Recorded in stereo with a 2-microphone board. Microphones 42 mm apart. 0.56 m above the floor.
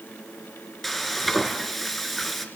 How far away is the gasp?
I don't hear a gasp.